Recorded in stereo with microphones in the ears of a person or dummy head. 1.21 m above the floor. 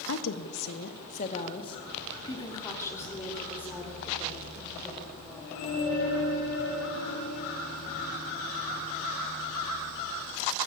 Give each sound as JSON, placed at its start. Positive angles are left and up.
{"t": 0.1, "sound": "a woman speaking", "side_deg": 75, "distance_m": 1.7}